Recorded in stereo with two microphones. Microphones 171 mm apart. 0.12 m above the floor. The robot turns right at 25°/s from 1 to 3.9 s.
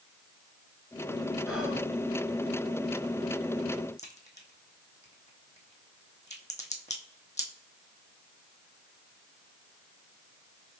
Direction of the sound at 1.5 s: 5° right (ahead or behind).